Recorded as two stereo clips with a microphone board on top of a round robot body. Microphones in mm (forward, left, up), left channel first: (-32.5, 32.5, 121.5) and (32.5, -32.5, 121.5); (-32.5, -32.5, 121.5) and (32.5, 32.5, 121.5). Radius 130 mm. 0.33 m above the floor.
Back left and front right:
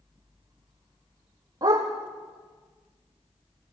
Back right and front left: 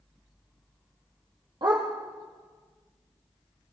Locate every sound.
1.6 s a dog barking: 5° left, 4 m